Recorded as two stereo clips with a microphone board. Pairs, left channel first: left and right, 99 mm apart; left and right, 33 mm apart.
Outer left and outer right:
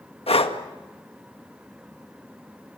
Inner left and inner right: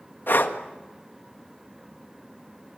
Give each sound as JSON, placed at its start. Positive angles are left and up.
{"t": 0.3, "sound": "breathing", "side_deg": 85, "distance_m": 1.8}